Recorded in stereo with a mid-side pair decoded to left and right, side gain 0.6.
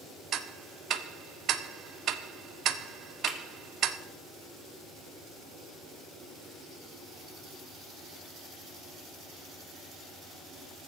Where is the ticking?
55° right, 0.9 m.